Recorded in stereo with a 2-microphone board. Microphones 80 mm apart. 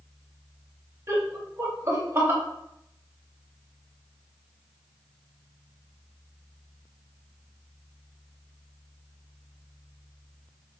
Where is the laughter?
35° right (ahead or behind), 0.9 m.